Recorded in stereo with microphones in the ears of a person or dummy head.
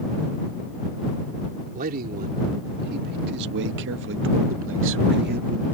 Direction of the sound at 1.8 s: 50° right (ahead or behind).